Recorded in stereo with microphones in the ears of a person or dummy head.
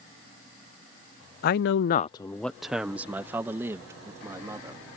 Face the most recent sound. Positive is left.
turn(degrees=-20)  # may be behind; listen again after turning